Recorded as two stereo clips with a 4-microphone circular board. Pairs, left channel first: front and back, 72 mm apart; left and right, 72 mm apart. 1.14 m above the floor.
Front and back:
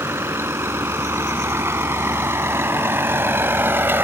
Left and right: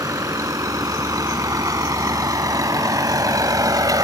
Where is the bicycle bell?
No bicycle bell in this recording.